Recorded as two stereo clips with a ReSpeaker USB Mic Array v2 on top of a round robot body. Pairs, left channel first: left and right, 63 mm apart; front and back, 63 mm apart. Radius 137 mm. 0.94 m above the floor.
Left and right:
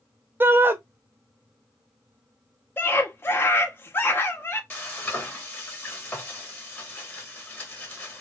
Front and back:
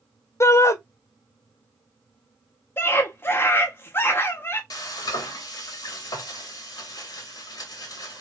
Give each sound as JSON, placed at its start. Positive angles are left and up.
{"t": 0.4, "sound": "a shout", "azimuth_deg": -35, "distance_m": 0.7}
{"t": 2.8, "sound": "a scream", "azimuth_deg": 45, "distance_m": 0.6}
{"t": 4.7, "sound": "frying", "azimuth_deg": 25, "distance_m": 0.9}